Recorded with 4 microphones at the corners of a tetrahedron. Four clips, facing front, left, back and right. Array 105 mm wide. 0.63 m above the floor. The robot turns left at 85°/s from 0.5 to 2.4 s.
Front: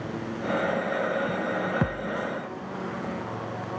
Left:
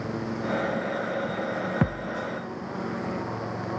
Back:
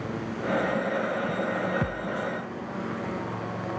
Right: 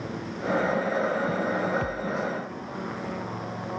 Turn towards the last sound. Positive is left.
turn(degrees=20)